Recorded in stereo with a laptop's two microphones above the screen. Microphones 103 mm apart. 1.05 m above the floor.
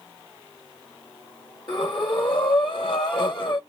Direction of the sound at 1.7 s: 50° left (ahead or behind).